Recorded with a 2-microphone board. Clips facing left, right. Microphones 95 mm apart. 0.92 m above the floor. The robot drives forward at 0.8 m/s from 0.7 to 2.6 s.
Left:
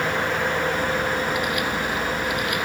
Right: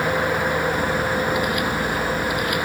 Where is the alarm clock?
I don't hear an alarm clock.